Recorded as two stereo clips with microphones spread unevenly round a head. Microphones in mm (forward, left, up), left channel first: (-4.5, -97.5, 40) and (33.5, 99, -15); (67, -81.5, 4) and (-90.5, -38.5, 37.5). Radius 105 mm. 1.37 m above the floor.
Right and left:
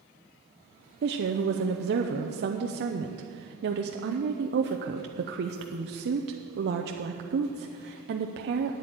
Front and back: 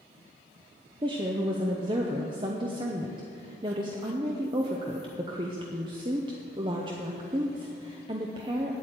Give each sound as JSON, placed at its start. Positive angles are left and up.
{"t": 1.0, "sound": "a woman speaking", "azimuth_deg": 95, "distance_m": 0.6}